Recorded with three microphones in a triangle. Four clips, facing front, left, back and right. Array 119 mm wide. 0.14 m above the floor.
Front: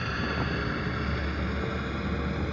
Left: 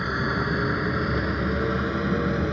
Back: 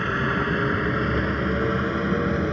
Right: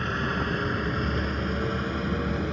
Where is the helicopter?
160° left; by 2.5 s 150° left.